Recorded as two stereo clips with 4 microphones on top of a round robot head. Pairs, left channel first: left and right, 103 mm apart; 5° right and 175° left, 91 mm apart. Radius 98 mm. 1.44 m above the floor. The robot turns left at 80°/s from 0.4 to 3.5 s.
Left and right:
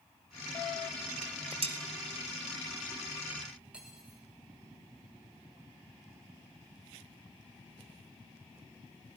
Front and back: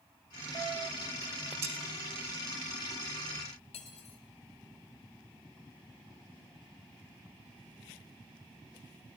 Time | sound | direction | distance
1.2 | dishes clattering | 85° right | 1.6 m
3.7 | cutlery clinking | 10° right | 1.5 m